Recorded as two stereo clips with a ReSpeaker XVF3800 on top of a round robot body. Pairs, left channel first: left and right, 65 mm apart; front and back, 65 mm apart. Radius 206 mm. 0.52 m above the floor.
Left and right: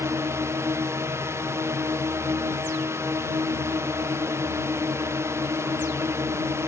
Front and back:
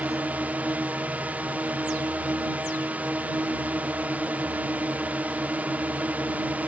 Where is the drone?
120° right.